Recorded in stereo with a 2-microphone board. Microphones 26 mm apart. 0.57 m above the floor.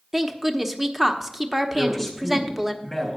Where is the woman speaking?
15° right (ahead or behind), 0.8 m.